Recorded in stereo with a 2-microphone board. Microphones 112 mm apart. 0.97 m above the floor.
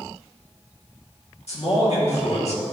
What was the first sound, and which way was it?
A man speaking, 70° left (ahead or behind).